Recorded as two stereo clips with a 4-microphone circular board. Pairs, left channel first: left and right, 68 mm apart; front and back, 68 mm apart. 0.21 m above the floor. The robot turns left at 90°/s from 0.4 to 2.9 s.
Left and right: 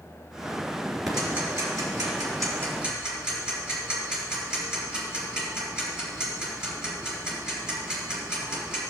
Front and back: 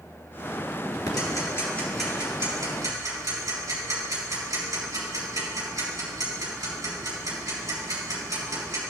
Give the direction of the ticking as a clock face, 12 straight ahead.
12 o'clock.